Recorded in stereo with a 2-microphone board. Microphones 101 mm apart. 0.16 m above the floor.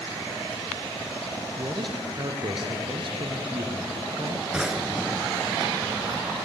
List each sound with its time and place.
1.6 s a man speaking: 55° right (ahead or behind), 3 m
4.5 s a drawer: 5° right (ahead or behind), 1.4 m